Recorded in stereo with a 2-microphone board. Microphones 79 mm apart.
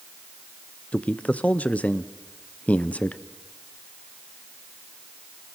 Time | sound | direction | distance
0.9 | a man speaking | 15° left (ahead or behind) | 0.5 m